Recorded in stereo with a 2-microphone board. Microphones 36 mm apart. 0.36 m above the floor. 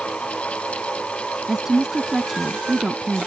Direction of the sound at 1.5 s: 15° right (ahead or behind).